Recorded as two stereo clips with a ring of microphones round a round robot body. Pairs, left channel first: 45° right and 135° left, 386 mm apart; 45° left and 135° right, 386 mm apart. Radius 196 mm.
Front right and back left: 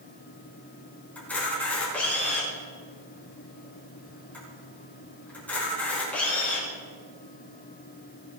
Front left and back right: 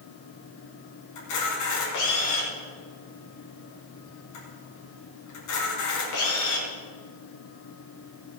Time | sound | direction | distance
1.1 | a camera shutter | 40° left | 4.5 m